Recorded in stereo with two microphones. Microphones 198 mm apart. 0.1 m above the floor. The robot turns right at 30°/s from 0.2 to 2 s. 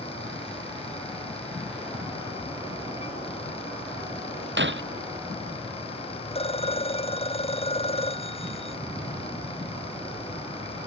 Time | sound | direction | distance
4.6 | breaking glass | 70° right (ahead or behind) | ?
6.3 | a phone ringing | 30° left (ahead or behind) | ?